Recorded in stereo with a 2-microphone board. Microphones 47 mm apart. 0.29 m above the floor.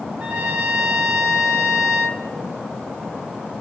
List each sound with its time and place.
0.2 s a trumpet: 45° right (ahead or behind), 1.7 m